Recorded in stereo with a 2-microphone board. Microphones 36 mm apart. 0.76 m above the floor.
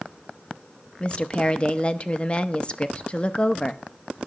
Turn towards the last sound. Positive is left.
turn(degrees=30)  # may be behind; listen again after turning